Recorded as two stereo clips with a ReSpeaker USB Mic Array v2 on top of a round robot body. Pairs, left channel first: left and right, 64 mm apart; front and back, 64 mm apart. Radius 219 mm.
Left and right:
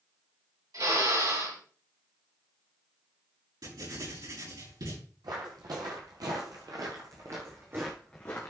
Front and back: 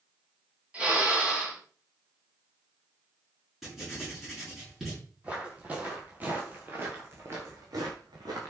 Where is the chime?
I don't hear a chime.